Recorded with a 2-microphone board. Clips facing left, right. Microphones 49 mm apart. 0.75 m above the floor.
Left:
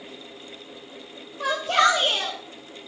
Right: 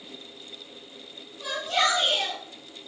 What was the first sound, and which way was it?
A shout, 75° left (ahead or behind).